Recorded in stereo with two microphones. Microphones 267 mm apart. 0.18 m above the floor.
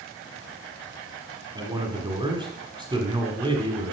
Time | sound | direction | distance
1.6 | a man speaking | 15° right (ahead or behind) | 1.2 m